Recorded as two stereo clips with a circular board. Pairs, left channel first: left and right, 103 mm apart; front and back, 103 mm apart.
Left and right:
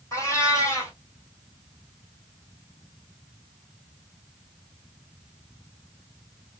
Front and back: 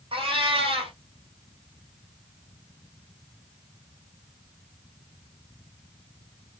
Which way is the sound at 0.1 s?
150° left.